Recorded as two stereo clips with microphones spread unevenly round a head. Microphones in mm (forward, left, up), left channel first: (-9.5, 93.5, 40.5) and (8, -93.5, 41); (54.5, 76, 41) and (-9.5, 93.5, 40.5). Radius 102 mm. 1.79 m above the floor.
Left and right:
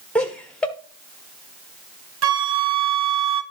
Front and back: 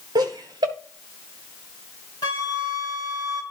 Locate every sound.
0.1 s laughter: straight behind, 1.4 m
2.2 s a flute: 80° right, 0.9 m